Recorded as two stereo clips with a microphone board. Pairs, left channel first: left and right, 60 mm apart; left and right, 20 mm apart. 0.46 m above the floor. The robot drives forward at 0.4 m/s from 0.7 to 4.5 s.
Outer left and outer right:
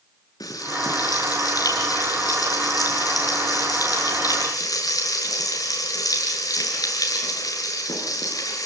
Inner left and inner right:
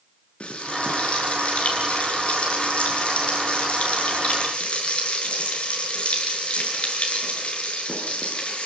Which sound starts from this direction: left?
Frying, at 0.4 s.